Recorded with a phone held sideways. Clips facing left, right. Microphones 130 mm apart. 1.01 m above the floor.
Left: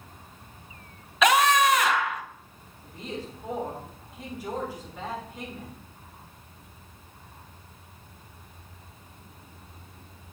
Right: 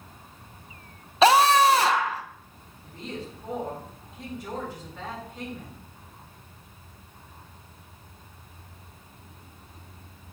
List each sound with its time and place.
1.2 s a scream: 30° right (ahead or behind), 0.5 m
2.8 s a woman speaking: 10° left (ahead or behind), 2 m